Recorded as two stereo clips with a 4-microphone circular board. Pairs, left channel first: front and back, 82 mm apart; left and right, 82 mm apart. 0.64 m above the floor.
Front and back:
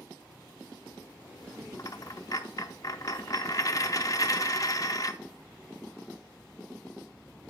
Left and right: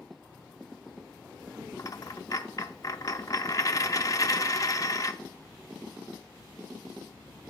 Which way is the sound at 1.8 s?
45° left.